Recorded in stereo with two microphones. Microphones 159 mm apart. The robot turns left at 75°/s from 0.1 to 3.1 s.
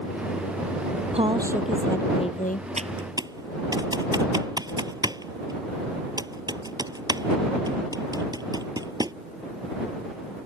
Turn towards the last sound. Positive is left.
turn(degrees=-25)  # may be behind; listen again after turning